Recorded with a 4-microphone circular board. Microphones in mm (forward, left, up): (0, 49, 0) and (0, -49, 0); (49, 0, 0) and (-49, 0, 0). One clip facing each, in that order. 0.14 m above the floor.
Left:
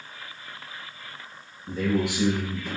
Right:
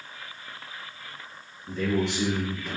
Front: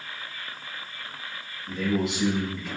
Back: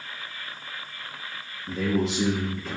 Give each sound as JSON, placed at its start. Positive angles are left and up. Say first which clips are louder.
{"t": 1.7, "sound": "a man speaking", "louder": "left 1 dB, back 1 dB", "azimuth_deg": 145, "distance_m": 1.5}